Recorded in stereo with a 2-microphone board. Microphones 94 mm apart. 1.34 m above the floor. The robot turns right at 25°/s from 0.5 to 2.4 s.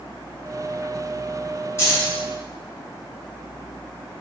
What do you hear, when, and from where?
1.8 s keys jangling: 25° left (ahead or behind), 0.9 m; by 2.2 s 35° left (ahead or behind), 0.9 m